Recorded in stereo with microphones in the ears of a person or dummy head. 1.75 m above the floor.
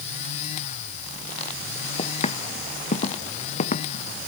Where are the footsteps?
30° left (ahead or behind); by 4.0 s 35° left (ahead or behind).